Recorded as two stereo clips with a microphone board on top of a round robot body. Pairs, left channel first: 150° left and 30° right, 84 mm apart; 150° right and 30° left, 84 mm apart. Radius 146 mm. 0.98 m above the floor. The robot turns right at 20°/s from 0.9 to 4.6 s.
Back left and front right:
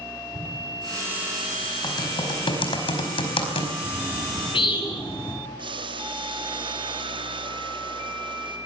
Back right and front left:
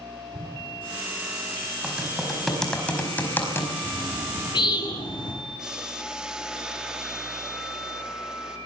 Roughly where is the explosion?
Ahead.